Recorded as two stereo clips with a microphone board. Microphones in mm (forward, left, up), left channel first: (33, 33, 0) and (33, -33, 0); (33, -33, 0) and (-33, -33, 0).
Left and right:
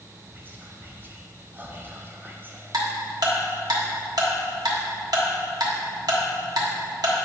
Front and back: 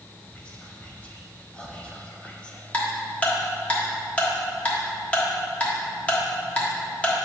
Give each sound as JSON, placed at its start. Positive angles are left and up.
{"t": 0.3, "sound": "whispering", "azimuth_deg": -60, "distance_m": 0.9}
{"t": 2.7, "sound": "ticking", "azimuth_deg": -70, "distance_m": 1.2}